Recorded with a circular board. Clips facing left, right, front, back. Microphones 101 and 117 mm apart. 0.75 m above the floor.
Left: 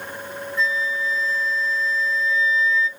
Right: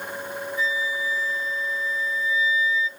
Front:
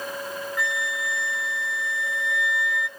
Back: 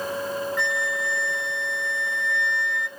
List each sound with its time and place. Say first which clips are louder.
0.6 s a flute: left 4 dB, back 2 dB; 85° left, 0.9 m